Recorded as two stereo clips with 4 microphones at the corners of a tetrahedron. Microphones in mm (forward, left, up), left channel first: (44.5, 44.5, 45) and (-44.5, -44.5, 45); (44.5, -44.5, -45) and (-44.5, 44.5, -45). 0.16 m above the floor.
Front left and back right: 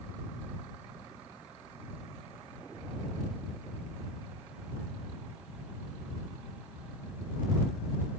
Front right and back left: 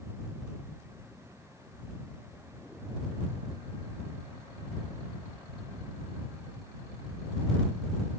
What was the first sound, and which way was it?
Only background noise.